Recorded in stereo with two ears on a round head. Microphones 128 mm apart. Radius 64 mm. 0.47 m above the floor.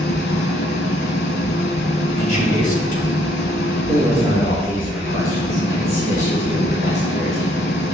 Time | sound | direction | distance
0.0 | an engine running | 85° left | 1.2 m
2.2 | a man speaking | 60° left (ahead or behind) | 3 m
3.9 | a man speaking | 60° left (ahead or behind) | 2.5 m